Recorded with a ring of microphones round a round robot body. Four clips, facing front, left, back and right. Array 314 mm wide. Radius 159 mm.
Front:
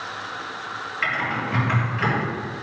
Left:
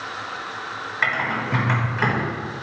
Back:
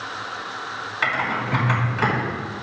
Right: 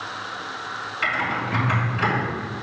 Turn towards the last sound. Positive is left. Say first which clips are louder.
# left 1 dB, back 2 dB
turn(degrees=140)